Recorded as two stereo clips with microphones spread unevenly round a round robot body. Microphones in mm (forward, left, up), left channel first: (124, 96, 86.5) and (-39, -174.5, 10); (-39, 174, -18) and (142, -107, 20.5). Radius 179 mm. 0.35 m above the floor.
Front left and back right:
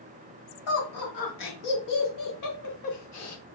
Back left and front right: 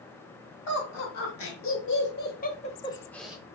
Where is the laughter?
95° left, 2 m; by 3.5 s 30° left, 1.0 m.